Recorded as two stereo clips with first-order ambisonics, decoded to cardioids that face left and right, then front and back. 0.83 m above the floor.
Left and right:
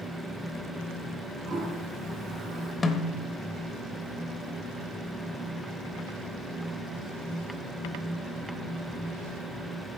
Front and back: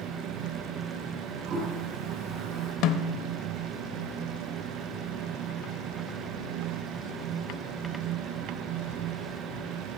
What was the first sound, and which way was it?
A toilet flushing, 145° right.